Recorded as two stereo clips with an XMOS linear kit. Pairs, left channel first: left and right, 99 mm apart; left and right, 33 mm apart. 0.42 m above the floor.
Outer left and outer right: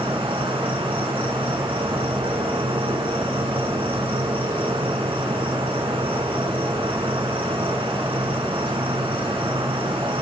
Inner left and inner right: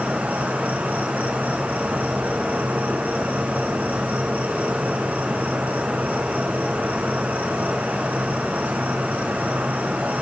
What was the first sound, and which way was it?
An insect, 60° right (ahead or behind).